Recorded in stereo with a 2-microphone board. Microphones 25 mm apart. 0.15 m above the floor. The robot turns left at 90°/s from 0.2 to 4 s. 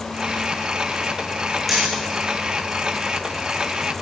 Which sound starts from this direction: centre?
Hammering, at 1.7 s.